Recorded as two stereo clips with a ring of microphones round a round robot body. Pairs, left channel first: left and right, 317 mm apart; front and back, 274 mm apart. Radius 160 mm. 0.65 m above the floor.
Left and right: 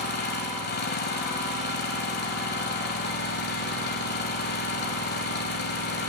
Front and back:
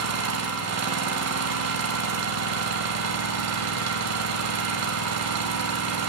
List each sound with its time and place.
0.0 s an engine running: 150° left, 1.2 m